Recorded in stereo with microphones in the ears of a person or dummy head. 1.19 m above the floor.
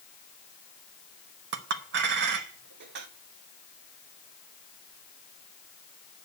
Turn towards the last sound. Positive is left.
turn(degrees=-60)  # may be behind; listen again after turning